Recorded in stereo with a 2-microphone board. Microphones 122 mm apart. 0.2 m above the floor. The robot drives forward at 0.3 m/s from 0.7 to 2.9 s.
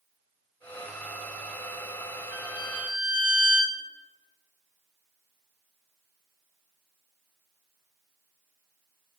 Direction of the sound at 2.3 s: 10° right (ahead or behind).